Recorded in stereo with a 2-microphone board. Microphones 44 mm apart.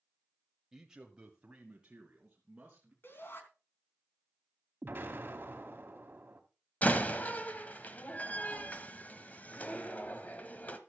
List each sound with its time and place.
0.7 s a man speaking: 10° right (ahead or behind), 1.0 m; by 2.9 s 25° right (ahead or behind), 3.5 m
3.0 s a shout: 60° left (ahead or behind), 3.5 m
4.8 s an explosion: 50° right (ahead or behind), 2 m
6.8 s a door slam: 40° left (ahead or behind), 1.3 m